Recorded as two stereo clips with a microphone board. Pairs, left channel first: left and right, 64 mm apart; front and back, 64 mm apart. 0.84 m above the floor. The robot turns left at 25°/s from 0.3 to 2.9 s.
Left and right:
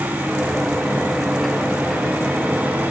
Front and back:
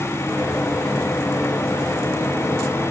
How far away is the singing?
I don't hear singing.